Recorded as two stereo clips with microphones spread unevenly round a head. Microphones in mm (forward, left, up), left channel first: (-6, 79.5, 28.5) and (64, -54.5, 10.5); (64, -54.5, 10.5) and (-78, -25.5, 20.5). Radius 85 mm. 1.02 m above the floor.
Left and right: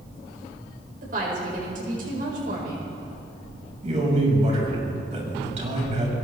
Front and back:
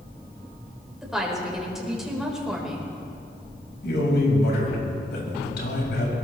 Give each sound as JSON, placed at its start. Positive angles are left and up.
{"t": 1.0, "sound": "a woman speaking", "azimuth_deg": -105, "distance_m": 4.5}
{"t": 3.8, "sound": "a man speaking", "azimuth_deg": -15, "distance_m": 5.5}